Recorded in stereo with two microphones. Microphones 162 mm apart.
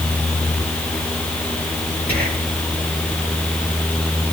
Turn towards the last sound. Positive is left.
turn(degrees=-75)  # may be behind; listen again after turning